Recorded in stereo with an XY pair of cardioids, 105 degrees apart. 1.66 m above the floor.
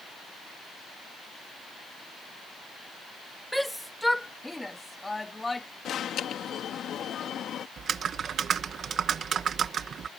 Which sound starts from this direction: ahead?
A shout, at 3.5 s.